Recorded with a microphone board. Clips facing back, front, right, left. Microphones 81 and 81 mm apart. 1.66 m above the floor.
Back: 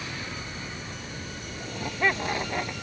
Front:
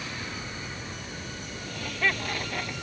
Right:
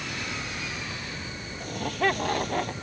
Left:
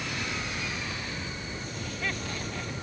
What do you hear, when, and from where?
1.6 s laughter: 115° right; by 2.7 s 110° right